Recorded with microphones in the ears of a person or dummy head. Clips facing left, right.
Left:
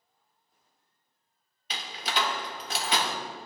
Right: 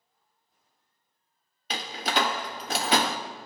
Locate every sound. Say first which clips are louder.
1.7 s a door slam: right 4 dB; 45° right (ahead or behind), 0.5 m